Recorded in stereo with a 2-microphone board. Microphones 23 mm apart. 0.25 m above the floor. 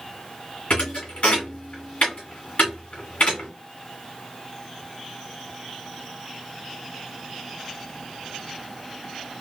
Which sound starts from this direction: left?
A thud, at 0.7 s.